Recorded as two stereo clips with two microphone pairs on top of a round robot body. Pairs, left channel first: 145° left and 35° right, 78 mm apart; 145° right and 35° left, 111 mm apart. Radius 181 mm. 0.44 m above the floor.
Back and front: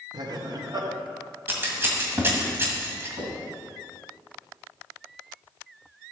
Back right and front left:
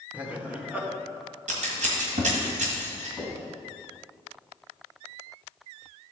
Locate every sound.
0.1 s laughter: 50° right, 1.7 m
1.5 s scissors: 30° left, 1.6 m
3.2 s knocking: 45° right, 4 m